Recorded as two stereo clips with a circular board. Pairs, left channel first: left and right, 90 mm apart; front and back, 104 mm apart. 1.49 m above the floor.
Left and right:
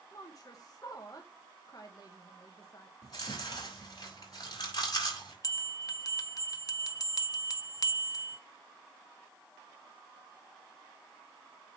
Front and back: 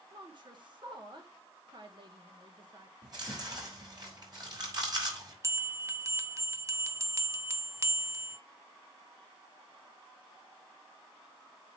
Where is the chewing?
130° left, 5 m.